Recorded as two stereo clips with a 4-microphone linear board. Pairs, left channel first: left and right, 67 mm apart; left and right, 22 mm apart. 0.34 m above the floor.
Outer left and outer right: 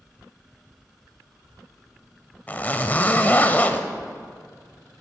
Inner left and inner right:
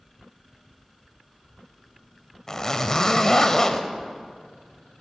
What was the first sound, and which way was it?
A zipper, 25° left (ahead or behind).